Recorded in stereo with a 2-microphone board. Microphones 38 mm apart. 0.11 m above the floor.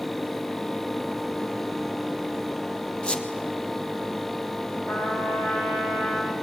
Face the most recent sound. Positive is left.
turn(degrees=70)  # may be behind; listen again after turning